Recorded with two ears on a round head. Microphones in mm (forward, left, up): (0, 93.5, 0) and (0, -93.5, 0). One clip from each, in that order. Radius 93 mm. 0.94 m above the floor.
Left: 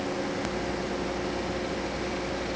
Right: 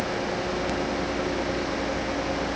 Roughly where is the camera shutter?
No camera shutter in this recording.